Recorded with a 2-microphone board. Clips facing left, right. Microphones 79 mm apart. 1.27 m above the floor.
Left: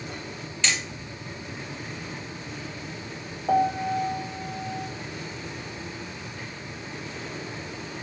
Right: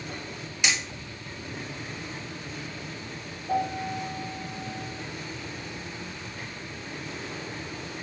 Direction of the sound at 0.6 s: 15° right (ahead or behind).